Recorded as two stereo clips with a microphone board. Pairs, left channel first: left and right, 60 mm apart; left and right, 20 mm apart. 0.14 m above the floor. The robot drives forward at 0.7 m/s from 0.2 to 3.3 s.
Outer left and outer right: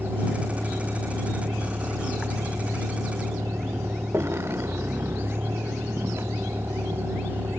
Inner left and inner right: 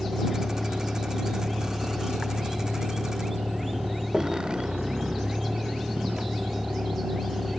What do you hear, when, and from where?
0.0 s a vehicle: 40° right (ahead or behind); by 7.6 s 45° right (ahead or behind)